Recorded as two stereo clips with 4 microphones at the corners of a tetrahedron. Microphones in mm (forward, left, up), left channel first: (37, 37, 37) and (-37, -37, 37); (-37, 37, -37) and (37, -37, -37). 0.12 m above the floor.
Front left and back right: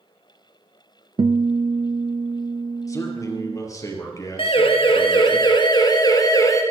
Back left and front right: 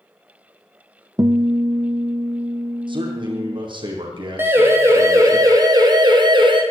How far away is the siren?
About 3 m.